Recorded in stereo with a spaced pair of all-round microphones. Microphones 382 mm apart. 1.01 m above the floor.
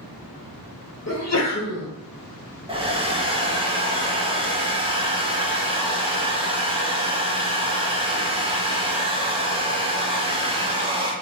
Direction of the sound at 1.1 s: 40° left (ahead or behind).